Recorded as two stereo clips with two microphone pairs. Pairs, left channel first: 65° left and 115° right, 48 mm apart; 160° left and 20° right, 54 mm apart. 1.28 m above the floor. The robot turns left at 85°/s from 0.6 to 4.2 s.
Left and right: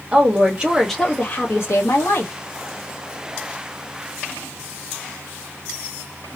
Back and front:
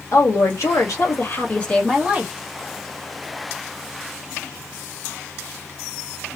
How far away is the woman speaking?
About 2.0 m.